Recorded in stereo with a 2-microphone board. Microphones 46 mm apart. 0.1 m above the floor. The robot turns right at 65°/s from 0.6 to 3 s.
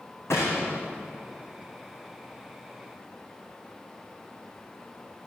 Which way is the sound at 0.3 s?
75° left (ahead or behind).